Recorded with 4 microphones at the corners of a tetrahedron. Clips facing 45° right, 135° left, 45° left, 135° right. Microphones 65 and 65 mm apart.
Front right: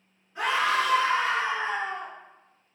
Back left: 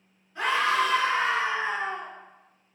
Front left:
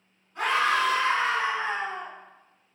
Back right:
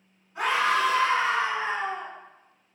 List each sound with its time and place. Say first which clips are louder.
0.3 s a scream: back left 1 dB, even; 80° right, 1.6 m; by 2.1 s 160° left, 1.7 m